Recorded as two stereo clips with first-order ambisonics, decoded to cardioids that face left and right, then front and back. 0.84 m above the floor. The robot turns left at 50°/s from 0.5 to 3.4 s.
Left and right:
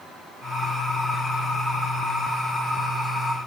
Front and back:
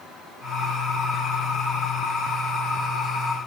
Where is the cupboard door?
No cupboard door in this recording.